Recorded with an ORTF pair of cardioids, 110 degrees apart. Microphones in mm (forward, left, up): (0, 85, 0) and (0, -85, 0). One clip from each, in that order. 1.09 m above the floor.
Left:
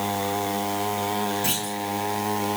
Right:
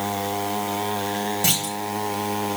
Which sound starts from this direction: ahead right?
A clunk, at 1.4 s.